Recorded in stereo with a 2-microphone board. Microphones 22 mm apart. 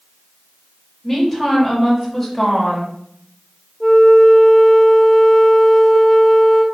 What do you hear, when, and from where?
1.0 s a woman speaking: centre (ahead or behind), 1.8 m
3.8 s a flute: 25° left (ahead or behind), 0.7 m